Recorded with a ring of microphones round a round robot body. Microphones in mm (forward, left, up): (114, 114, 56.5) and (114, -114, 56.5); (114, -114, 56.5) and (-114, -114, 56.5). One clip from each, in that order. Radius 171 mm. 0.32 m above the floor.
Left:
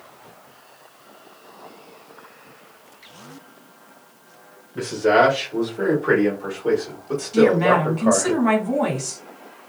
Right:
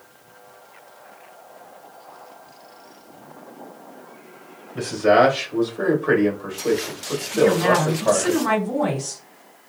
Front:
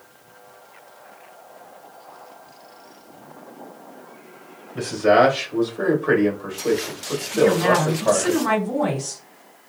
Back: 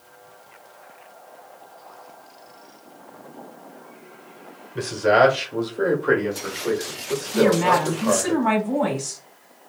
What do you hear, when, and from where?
4.8 s a man speaking: 135° right, 1.7 m; by 8.3 s 25° left, 1.8 m
7.3 s a woman speaking: 125° left, 2 m